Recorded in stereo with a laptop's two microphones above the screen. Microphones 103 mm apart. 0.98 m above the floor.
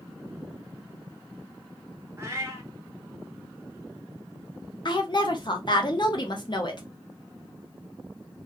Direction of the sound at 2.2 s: 25° right (ahead or behind).